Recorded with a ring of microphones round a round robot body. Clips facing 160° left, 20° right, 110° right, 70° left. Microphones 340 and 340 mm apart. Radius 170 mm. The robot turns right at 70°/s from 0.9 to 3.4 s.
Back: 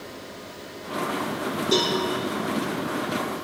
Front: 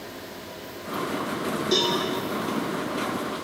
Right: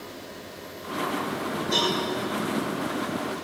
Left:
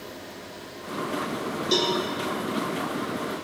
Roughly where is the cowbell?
Ahead left.